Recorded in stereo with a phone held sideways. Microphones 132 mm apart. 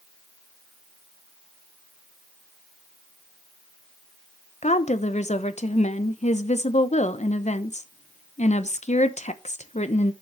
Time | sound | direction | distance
4.6 | a woman speaking | 60° left (ahead or behind) | 0.8 m